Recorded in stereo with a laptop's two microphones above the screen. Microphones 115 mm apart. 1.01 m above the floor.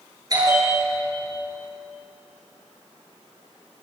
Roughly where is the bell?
Right.